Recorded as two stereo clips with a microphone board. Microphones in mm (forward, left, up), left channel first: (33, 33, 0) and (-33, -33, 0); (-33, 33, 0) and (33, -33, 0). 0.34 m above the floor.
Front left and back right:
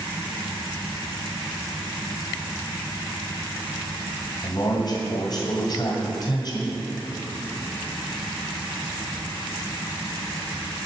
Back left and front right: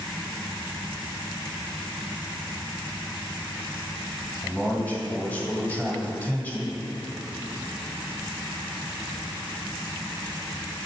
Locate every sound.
4.4 s a man speaking: 60° left, 1.5 m